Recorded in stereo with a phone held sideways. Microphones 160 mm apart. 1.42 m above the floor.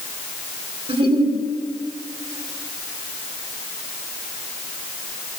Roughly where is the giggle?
Right.